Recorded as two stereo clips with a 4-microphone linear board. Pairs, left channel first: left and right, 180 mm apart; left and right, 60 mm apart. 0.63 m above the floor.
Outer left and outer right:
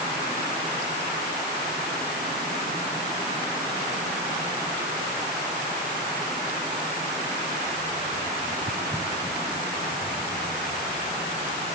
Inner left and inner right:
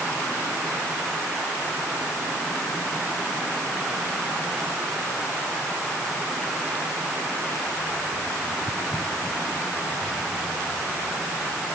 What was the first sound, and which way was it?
Only background noise.